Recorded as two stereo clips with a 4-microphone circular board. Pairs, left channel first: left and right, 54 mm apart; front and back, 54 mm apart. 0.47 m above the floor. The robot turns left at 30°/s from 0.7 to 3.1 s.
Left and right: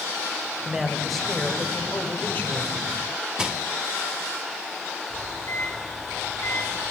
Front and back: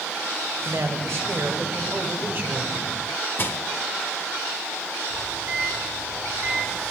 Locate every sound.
0.7 s a man speaking: 170° right, 2.5 m; by 2.8 s 125° left, 2.5 m
3.4 s crushing: 20° right, 1.4 m
5.1 s a microwave: 125° left, 7.5 m